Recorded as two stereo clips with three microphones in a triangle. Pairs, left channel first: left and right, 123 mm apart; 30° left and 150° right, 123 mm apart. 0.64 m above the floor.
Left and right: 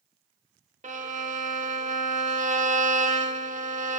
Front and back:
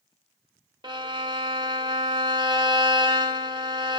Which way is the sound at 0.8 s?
95° right.